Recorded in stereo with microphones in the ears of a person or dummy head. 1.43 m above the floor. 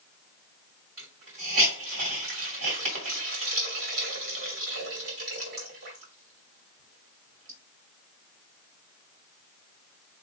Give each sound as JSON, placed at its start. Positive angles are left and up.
{"t": 1.0, "sound": "a hiss", "side_deg": -65, "distance_m": 2.0}